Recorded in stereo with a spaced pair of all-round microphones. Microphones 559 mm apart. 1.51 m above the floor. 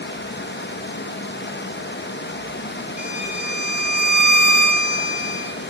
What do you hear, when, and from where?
0.0 s running water: 20° left (ahead or behind), 0.8 m
3.0 s a violin: 55° right (ahead or behind), 1.8 m